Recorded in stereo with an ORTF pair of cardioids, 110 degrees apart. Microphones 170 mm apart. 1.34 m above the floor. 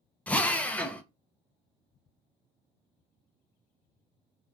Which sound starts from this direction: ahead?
A drill, at 0.3 s.